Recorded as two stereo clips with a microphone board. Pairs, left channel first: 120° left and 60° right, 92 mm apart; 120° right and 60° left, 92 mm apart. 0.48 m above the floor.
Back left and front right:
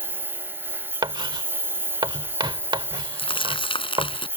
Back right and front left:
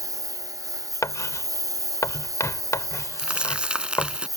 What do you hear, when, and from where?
0.0 s a lawn mower: 10° left
1.0 s writing: 70° right
3.2 s crumpling: 140° left